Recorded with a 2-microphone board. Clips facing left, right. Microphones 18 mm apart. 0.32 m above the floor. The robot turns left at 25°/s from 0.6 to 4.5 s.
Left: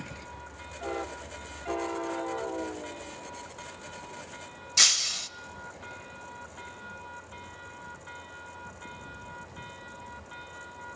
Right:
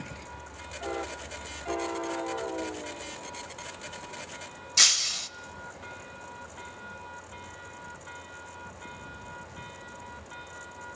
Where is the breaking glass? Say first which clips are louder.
Even; centre (ahead or behind), 0.6 m.